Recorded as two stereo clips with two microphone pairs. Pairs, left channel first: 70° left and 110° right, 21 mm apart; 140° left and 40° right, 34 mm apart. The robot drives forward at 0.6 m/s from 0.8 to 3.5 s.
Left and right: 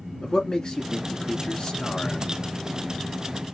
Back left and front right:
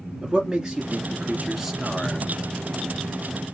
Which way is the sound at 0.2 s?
25° left.